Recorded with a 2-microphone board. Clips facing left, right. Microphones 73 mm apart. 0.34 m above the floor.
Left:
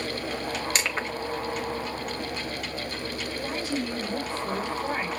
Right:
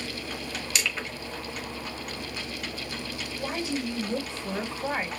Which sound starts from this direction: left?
Crushing, at 0.8 s.